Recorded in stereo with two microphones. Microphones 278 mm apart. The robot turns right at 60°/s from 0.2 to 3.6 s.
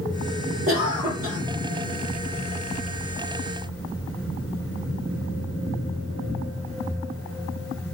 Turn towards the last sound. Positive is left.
turn(degrees=95)